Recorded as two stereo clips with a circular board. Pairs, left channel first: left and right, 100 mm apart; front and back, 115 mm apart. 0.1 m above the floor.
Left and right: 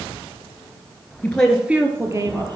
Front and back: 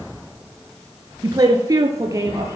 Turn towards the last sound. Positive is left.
turn(degrees=-120)